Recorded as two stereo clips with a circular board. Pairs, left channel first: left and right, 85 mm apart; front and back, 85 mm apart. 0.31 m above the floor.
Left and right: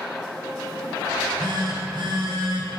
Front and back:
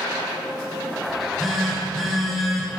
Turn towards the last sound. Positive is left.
turn(degrees=-90)